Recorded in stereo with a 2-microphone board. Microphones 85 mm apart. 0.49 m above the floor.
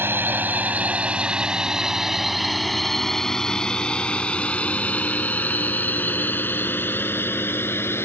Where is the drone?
25° right (ahead or behind); by 8.1 s 25° left (ahead or behind).